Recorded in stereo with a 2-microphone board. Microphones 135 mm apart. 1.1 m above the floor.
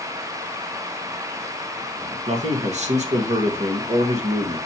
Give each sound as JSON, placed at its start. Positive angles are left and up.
{"t": 2.3, "sound": "a man speaking", "side_deg": -55, "distance_m": 1.4}